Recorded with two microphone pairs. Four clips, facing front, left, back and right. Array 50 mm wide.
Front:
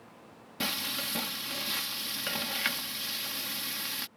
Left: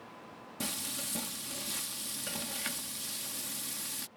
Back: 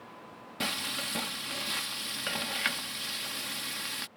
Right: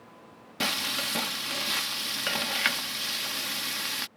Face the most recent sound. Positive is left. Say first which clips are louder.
# right 11 dB, even
turn(degrees=-95)